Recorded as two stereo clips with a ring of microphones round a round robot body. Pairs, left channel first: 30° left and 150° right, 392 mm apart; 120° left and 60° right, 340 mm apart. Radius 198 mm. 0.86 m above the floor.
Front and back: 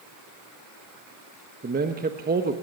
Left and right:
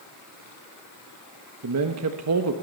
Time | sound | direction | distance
1.6 | a man speaking | 90° right | 1.2 m